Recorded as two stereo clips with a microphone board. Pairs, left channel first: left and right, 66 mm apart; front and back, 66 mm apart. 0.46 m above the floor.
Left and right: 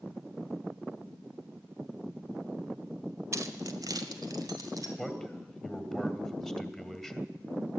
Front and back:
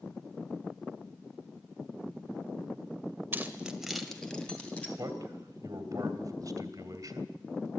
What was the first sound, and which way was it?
Keys jangling, 125° right.